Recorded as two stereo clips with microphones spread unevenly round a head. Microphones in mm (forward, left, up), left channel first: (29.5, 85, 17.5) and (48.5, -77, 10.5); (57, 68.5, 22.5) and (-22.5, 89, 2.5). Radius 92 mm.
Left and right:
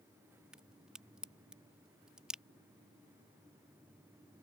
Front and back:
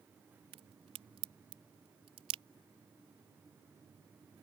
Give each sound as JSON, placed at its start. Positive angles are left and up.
{"t": 0.5, "sound": "a crack", "azimuth_deg": -170}